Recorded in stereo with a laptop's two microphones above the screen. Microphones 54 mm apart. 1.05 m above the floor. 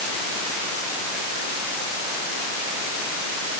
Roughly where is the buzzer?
I don't hear a buzzer.